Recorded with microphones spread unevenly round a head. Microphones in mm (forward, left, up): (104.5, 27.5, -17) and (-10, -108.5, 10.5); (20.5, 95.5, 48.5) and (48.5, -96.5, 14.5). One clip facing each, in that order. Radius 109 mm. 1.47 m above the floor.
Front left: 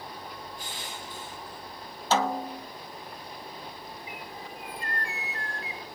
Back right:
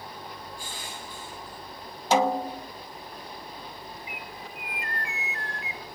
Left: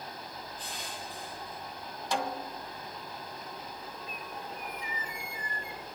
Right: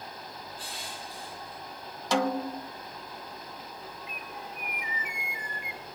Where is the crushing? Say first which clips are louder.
Even, even; 20° right, 9.5 m.